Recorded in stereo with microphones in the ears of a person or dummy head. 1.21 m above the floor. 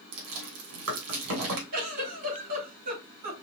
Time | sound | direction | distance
0.1 | chewing | 75° right (ahead or behind) | 2.5 m
1.7 | a giggle | 50° right (ahead or behind) | 3.5 m